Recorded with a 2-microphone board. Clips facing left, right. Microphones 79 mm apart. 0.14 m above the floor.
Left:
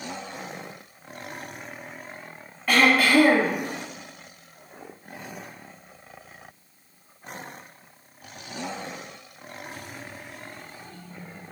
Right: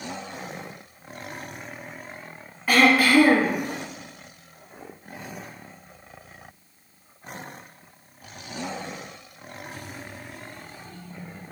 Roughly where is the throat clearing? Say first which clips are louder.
Right 1 dB; centre.